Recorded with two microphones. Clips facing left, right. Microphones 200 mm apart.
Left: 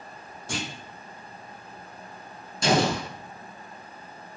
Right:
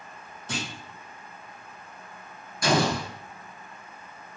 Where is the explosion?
30° left (ahead or behind), 0.9 m.